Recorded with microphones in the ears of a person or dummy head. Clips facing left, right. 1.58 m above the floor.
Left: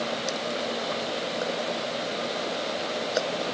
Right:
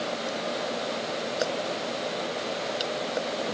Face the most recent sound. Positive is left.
No sound to turn to.